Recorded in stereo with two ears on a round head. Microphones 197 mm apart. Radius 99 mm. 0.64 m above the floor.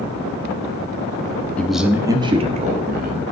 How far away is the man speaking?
About 0.9 m.